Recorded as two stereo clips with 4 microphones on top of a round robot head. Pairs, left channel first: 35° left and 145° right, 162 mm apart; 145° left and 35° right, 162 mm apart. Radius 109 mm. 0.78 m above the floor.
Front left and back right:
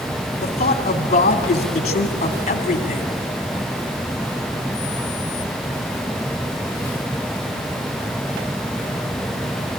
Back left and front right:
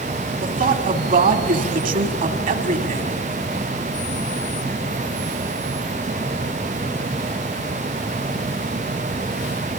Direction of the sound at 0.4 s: 10° right.